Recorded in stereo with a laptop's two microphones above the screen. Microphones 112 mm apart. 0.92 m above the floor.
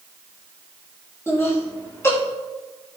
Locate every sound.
1.3 s laughter: 20° left (ahead or behind), 2 m